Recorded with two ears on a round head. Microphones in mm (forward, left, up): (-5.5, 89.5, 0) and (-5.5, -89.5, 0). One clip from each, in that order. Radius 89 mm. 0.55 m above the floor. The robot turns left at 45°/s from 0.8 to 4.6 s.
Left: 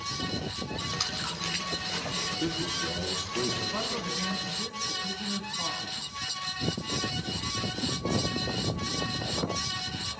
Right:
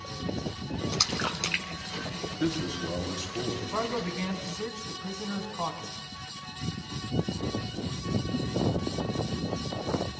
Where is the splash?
15° right (ahead or behind), 2.5 m; by 2.8 s 80° right, 2.5 m.